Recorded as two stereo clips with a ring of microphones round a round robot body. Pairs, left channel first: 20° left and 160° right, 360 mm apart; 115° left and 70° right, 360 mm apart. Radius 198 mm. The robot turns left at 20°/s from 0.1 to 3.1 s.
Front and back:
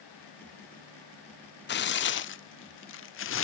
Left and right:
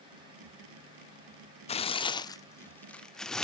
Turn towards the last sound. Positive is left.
turn(degrees=25)